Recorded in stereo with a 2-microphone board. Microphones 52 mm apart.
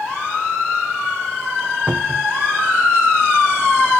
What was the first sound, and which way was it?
A cupboard door, 20° right (ahead or behind).